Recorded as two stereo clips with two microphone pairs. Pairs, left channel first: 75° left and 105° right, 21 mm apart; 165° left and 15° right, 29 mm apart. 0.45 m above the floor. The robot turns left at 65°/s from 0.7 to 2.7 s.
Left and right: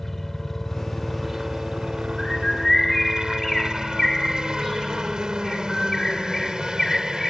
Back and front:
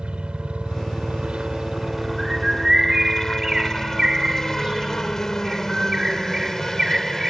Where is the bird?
45° left; by 7.3 s 10° left.